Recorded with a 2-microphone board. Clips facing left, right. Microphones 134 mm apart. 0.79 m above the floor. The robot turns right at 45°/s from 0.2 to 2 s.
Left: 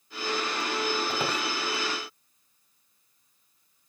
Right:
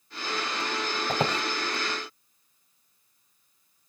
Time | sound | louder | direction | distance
1.1 | a squeak | right 3 dB | 45° right (ahead or behind) | 1.4 m